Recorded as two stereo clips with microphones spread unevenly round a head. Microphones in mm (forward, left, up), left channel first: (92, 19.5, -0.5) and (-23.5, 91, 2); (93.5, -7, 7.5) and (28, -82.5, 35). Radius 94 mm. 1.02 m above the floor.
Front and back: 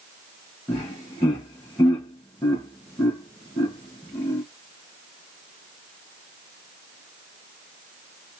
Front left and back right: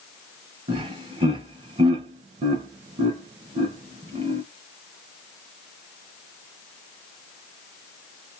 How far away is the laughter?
About 1.2 m.